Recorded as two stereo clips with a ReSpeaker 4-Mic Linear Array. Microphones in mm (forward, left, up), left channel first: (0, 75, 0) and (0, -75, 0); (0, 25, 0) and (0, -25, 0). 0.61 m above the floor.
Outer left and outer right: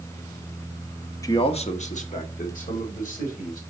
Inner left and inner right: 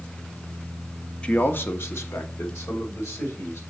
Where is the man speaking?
20° left (ahead or behind), 0.6 m; by 3.6 s 65° left (ahead or behind), 3 m.